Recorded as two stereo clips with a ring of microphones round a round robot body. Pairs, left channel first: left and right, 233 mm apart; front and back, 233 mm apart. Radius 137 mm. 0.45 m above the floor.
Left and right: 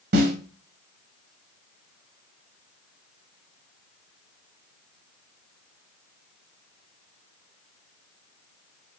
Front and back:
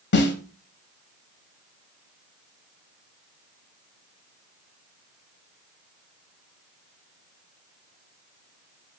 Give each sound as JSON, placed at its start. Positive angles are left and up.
{"t": 0.1, "sound": "a snare drum", "azimuth_deg": -40, "distance_m": 1.0}